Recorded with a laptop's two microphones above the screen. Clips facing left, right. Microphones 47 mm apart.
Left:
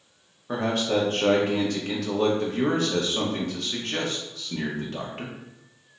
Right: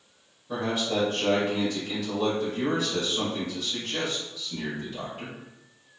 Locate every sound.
0.5 s a man speaking: 65° left (ahead or behind), 0.8 m